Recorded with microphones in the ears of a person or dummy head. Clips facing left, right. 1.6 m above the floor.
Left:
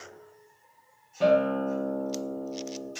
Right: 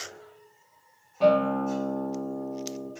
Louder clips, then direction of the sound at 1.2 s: Right 1 dB; 15° left (ahead or behind).